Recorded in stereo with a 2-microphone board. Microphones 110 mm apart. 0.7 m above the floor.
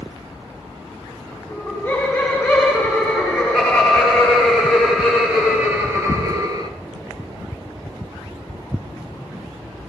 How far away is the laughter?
About 3.5 m.